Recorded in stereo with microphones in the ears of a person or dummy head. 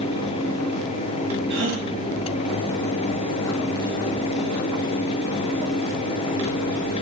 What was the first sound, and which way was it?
A gasp, 65° right (ahead or behind).